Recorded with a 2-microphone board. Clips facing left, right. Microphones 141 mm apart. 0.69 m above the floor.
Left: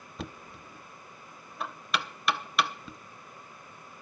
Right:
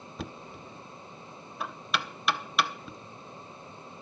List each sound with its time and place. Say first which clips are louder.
0.2 s knocking: right 1 dB; centre (ahead or behind), 0.7 m